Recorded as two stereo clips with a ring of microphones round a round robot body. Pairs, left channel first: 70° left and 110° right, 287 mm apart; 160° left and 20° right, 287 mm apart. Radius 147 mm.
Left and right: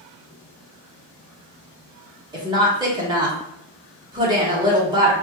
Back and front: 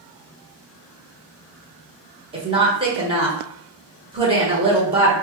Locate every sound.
2.3 s a woman speaking: 60° right, 1.2 m